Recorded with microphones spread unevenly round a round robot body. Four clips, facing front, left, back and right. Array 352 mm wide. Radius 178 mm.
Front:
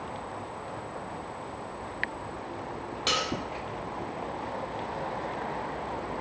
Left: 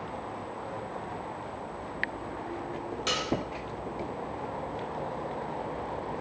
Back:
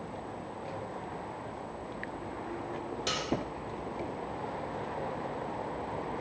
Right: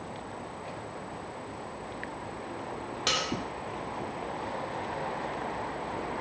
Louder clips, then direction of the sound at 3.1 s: Right 1 dB, front 7 dB; 170° right.